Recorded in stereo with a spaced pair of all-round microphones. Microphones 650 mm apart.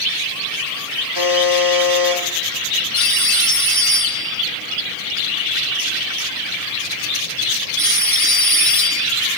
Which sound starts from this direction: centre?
A phone ringing, at 2.9 s.